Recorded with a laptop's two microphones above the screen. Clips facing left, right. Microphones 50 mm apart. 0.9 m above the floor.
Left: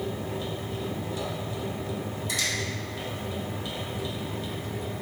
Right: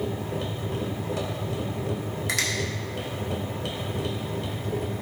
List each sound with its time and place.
0.0 s a machine running: 60° right (ahead or behind), 1.1 m
2.3 s a finger snap: 80° right, 1.8 m